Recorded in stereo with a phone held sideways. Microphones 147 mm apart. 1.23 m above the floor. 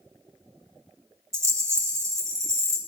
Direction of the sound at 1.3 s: 20° right (ahead or behind).